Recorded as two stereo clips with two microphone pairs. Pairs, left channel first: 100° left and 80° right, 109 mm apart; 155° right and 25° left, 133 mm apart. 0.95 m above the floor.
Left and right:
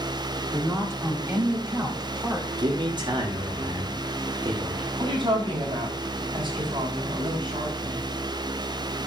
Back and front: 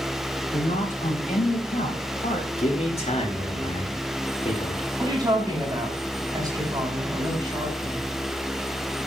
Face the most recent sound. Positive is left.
turn(degrees=-35)